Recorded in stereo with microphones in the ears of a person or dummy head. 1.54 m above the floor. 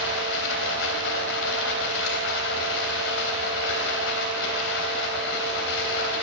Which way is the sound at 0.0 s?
65° left (ahead or behind).